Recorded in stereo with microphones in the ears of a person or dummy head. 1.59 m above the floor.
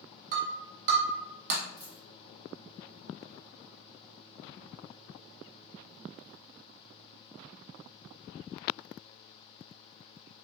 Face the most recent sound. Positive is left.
turn(degrees=20)  # may be behind; listen again after turning